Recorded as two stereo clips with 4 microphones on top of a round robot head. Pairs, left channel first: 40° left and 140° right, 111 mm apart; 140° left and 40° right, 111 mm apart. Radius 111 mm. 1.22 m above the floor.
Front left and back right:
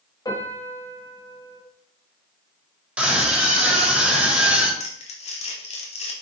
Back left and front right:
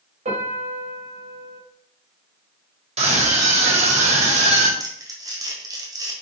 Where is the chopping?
I don't hear chopping.